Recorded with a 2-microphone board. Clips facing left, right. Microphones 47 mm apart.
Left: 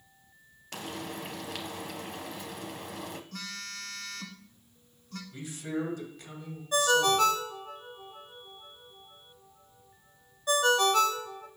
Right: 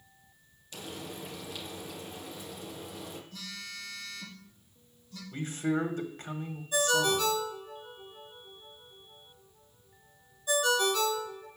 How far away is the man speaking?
About 1.8 m.